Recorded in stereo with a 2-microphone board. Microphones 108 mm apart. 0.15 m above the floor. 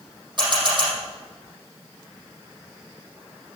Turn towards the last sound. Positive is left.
turn(degrees=-45)  # may be behind; listen again after turning